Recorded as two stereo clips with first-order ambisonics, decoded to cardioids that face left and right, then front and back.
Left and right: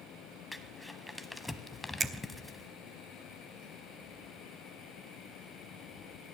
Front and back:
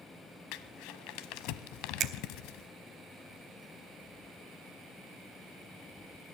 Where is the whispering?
No whispering in this recording.